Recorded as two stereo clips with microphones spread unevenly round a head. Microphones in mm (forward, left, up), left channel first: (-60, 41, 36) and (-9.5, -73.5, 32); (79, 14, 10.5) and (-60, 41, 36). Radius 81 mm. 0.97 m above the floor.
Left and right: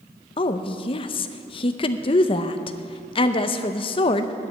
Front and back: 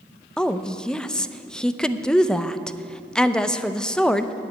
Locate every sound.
0.4 s a woman speaking: 70° left, 0.6 m